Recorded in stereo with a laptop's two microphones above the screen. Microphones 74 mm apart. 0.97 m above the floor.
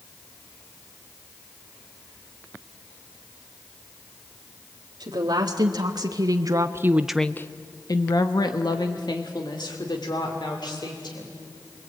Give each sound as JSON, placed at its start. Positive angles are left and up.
{"t": 5.0, "sound": "a woman speaking", "side_deg": -75, "distance_m": 2.0}